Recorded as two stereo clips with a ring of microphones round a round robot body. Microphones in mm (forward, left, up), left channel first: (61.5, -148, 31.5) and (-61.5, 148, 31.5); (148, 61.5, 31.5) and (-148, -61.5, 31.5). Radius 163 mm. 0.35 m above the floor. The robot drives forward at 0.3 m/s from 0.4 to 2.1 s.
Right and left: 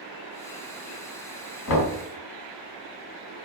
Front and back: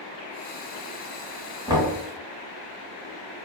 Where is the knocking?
80° right, 1.1 m; by 2.0 s 90° right, 1.1 m.